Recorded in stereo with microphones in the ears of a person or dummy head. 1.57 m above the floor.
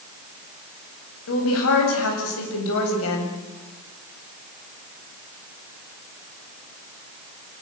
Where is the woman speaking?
75° left (ahead or behind), 9.5 m; by 3.3 s 80° left, 8.5 m.